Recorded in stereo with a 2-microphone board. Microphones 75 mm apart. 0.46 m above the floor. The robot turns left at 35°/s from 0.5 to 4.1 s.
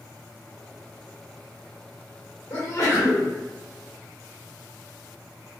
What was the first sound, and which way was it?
A sneeze, 35° left (ahead or behind).